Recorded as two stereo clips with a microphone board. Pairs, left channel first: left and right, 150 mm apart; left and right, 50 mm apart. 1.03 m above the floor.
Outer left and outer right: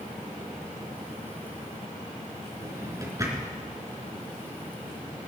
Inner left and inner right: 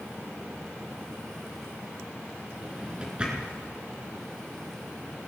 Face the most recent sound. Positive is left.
turn(degrees=-25)  # may be behind; listen again after turning